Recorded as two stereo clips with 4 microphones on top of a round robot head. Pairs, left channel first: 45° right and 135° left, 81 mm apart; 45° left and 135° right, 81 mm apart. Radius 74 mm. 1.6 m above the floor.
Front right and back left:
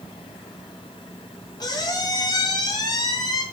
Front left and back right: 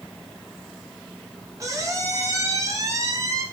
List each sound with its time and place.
1.6 s a squeak: 80° right, 0.7 m